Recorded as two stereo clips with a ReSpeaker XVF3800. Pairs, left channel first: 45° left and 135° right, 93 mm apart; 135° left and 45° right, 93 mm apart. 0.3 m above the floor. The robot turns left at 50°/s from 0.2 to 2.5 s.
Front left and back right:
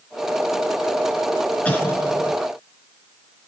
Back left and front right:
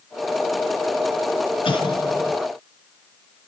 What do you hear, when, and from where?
1.6 s an explosion: 120° left, 3.5 m; by 2.4 s 85° left, 3.5 m